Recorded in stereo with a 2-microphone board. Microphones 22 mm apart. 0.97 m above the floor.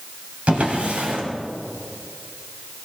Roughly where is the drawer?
Right.